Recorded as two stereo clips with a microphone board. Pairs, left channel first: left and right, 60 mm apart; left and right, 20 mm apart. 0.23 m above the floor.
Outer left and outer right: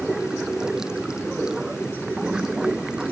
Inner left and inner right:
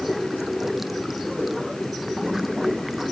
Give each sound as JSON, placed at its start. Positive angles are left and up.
{"t": 0.0, "sound": "running water", "side_deg": -10}